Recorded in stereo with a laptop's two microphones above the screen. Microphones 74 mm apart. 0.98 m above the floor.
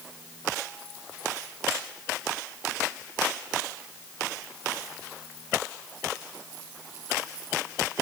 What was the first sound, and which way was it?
Only background noise.